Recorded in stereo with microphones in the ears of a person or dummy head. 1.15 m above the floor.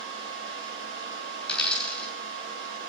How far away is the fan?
About 7 m.